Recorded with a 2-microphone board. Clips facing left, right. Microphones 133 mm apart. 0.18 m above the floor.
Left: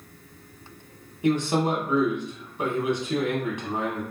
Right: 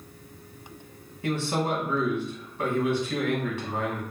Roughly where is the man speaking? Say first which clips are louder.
Left 4 dB; centre.